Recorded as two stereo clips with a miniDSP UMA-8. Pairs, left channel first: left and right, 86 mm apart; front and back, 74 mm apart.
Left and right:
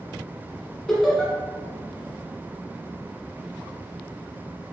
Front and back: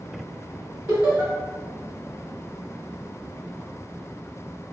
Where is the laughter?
165° left, 1.1 m.